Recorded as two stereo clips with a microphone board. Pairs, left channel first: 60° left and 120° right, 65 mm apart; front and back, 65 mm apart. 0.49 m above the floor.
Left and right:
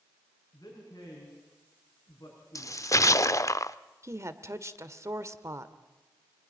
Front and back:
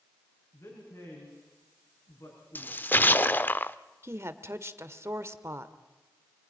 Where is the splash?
50° left, 0.5 m.